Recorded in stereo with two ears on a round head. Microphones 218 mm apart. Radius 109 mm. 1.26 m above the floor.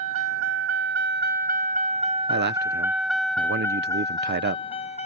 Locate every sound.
0.0 s a vehicle: 65° right (ahead or behind); by 5.1 s 30° left (ahead or behind)
2.3 s a man speaking: 45° right (ahead or behind)